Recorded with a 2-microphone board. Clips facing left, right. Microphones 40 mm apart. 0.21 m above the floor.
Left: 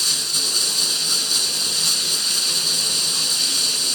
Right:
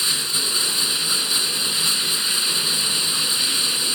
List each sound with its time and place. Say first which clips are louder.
0.0 s running water: even; 25° right (ahead or behind), 1.9 m